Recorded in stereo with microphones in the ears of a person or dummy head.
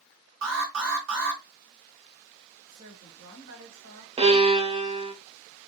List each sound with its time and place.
0.4 s an alarm: 75° right (ahead or behind), 2 m
2.7 s a woman speaking: 65° right (ahead or behind), 2.5 m
4.2 s a violin: 25° right (ahead or behind), 0.6 m